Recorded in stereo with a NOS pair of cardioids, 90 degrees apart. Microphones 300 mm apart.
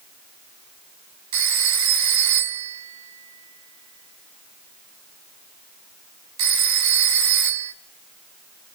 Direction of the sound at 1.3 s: 70° right.